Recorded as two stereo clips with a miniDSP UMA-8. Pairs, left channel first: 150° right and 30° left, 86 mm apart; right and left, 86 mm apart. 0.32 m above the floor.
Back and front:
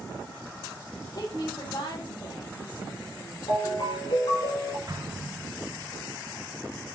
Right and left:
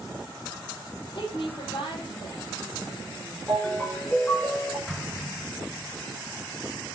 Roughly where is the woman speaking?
Behind right.